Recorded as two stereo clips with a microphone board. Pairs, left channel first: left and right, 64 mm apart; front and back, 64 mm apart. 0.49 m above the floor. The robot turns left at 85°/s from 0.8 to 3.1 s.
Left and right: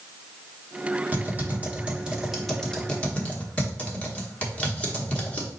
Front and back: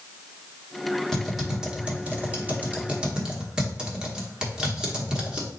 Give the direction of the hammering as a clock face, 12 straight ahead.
I don't hear hammering.